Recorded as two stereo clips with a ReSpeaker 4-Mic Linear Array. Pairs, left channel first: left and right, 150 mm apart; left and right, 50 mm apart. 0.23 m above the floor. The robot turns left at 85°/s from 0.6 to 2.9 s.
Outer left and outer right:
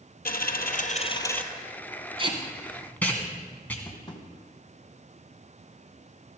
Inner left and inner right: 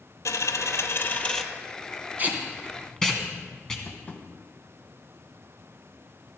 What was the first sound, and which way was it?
A dropped coin, 80° left.